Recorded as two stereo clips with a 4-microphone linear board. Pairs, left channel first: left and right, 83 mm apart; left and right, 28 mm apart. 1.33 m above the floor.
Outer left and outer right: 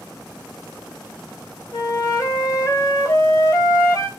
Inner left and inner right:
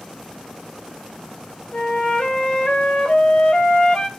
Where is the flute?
45° left (ahead or behind), 2 m.